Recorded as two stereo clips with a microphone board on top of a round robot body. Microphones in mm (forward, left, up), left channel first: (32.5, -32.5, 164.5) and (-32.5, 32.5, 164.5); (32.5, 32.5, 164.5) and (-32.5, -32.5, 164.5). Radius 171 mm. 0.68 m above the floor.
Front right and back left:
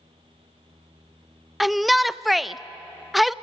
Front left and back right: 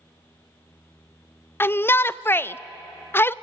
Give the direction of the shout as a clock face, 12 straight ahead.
10 o'clock.